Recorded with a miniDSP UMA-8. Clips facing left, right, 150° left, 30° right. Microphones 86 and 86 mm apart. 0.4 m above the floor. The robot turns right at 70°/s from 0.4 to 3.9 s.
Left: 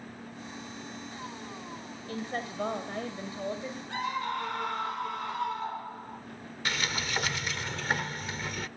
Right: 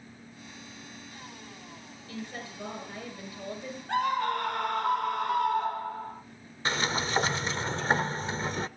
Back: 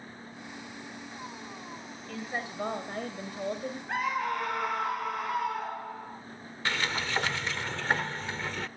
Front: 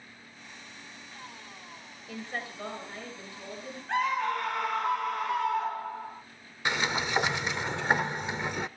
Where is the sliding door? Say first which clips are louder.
Right 4 dB, front 2 dB; 85° right, 0.5 m.